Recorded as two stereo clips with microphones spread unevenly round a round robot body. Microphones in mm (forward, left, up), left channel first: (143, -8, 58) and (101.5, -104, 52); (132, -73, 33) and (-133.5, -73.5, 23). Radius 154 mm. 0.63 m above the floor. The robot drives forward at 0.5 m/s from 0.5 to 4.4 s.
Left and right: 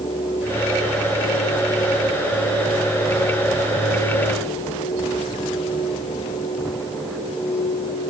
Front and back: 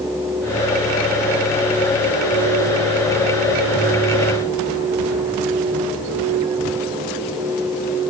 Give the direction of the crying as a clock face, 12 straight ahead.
No crying in this recording.